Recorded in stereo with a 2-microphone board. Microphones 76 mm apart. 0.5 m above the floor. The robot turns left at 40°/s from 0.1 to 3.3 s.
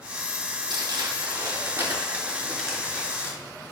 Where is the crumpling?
70° right (ahead or behind), 4 m; by 3.7 s 30° left (ahead or behind), 4 m.